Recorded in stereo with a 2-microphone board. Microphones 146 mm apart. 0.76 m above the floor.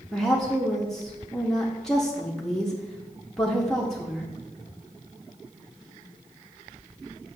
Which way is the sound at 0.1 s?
5° left (ahead or behind).